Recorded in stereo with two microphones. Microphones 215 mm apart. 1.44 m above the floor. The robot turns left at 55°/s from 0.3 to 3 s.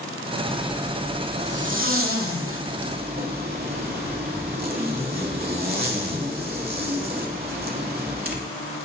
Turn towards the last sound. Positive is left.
turn(degrees=-135)